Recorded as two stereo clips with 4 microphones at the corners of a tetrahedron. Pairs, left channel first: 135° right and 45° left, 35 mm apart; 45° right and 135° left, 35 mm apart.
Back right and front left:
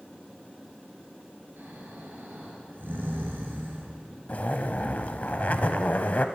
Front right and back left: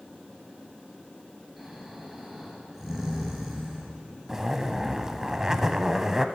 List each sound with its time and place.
1.6 s snoring: 50° left, 3 m
4.3 s a zipper: 160° right, 0.6 m